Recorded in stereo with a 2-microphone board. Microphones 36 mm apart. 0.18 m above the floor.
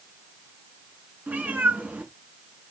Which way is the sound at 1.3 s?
55° right (ahead or behind).